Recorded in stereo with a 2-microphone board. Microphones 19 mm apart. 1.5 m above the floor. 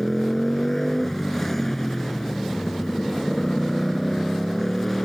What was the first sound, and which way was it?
A motorcycle, 20° left (ahead or behind).